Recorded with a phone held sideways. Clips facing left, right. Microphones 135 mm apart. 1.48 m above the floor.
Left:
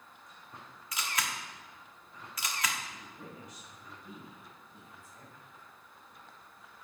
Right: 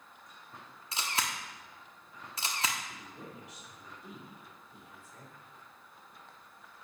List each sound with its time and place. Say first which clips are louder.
0.9 s a camera shutter: right 1 dB; 30° right (ahead or behind), 1.2 m
2.9 s a woman speaking: right 1 dB; 80° right, 4 m